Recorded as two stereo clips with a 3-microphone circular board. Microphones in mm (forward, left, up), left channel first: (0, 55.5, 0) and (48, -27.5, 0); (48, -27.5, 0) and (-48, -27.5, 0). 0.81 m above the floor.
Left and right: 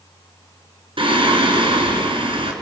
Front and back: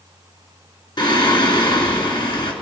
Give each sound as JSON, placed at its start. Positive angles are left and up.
{"t": 1.0, "sound": "singing", "azimuth_deg": -35, "distance_m": 2.5}